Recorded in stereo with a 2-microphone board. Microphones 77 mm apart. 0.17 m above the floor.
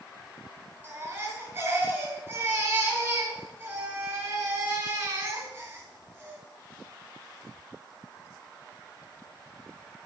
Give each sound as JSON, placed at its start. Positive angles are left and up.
{"t": 0.8, "sound": "a baby crying", "side_deg": -30, "distance_m": 0.9}